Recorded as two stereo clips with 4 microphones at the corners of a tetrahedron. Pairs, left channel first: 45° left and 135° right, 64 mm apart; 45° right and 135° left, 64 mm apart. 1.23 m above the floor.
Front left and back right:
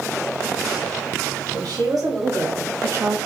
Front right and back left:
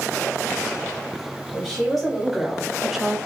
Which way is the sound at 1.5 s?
130° right.